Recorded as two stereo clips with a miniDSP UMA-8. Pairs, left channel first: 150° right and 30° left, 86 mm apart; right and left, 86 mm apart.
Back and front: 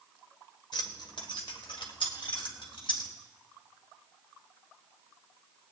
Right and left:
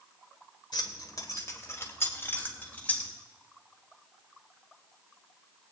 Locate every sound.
0.7 s keys jangling: 125° right, 1.5 m; by 3.1 s 165° right, 3 m